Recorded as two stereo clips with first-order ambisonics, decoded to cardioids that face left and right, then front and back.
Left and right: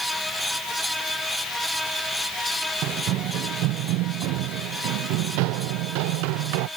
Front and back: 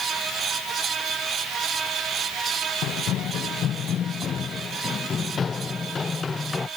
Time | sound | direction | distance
2.8 | running footsteps | 45° right | ?